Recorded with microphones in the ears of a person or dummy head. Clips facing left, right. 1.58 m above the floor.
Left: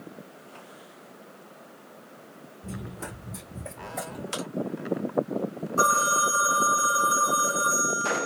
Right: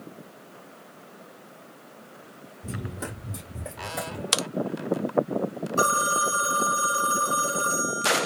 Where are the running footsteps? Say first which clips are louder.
Right 3 dB; 15° right (ahead or behind), 1.9 m.